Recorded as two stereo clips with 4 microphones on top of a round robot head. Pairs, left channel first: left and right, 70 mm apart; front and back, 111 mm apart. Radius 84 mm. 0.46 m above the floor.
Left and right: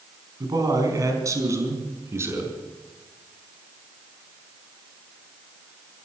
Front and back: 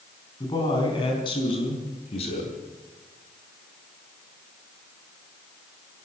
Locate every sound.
0.4 s a man speaking: 60° right, 4.5 m; by 2.6 s 35° right, 5.5 m